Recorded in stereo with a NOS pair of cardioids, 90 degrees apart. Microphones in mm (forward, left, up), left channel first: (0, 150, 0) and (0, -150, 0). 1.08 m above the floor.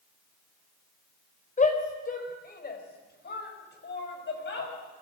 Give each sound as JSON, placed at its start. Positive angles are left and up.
{"t": 1.6, "sound": "a shout", "azimuth_deg": 25, "distance_m": 4.5}